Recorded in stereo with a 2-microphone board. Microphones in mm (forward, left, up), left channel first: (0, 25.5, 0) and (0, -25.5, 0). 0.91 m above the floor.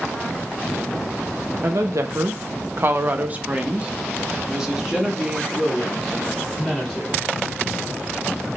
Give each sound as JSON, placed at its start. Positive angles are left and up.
{"t": 1.6, "sound": "a woman speaking", "side_deg": -55, "distance_m": 0.6}